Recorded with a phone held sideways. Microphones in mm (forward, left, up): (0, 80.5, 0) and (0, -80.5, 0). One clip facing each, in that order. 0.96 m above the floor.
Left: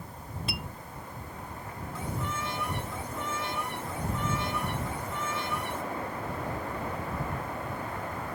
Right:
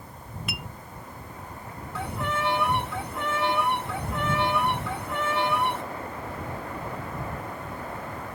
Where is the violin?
75° right (ahead or behind).